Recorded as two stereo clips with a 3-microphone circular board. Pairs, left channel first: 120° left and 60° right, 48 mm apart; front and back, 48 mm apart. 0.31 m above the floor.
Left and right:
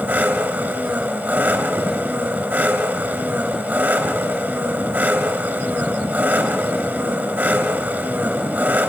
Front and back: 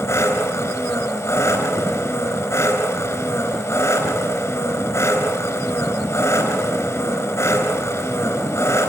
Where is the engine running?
15° right, 4 m.